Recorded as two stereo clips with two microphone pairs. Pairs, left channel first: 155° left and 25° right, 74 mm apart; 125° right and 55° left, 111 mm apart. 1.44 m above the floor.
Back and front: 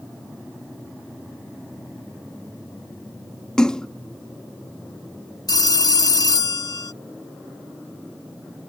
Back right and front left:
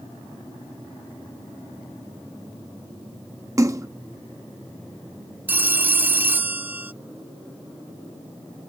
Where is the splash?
85° left.